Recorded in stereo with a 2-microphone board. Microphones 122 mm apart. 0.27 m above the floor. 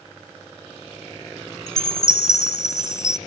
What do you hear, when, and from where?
1.7 s a chime: 25° left (ahead or behind), 0.5 m